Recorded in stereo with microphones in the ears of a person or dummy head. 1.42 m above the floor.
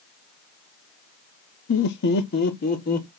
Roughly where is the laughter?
Left.